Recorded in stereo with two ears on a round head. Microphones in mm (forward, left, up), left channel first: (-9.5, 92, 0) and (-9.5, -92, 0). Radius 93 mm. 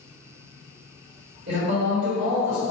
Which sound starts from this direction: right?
A man speaking, at 1.5 s.